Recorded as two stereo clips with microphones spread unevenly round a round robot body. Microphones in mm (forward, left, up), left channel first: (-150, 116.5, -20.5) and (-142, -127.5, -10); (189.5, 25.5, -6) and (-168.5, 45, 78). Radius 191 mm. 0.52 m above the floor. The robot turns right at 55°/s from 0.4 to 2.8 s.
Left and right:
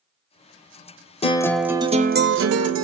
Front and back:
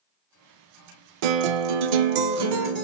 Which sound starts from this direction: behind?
A guitar, at 1.2 s.